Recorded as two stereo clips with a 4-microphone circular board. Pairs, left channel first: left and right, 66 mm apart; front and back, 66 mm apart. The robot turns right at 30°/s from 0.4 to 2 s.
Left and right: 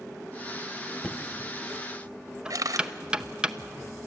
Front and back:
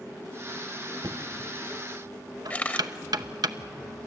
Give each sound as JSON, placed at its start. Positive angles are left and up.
{"t": 1.0, "sound": "knocking", "azimuth_deg": 165, "distance_m": 0.7}
{"t": 2.5, "sound": "a camera shutter", "azimuth_deg": -65, "distance_m": 1.2}